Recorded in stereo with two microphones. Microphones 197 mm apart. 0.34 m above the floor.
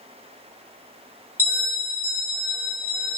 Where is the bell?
10° left (ahead or behind), 1.0 m.